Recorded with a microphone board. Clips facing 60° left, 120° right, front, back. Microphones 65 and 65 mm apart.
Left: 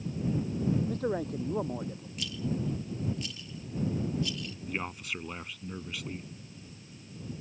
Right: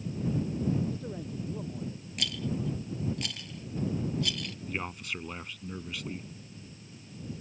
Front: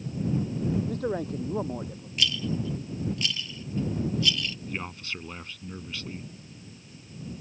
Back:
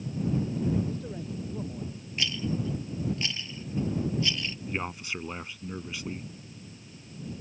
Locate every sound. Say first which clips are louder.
0.9 s a man speaking: left 6 dB, front 7 dB; 30° left
2.2 s a rattle: even, front 2 dB; 120° right
4.7 s a man speaking: left 1 dB, back 2 dB; 145° left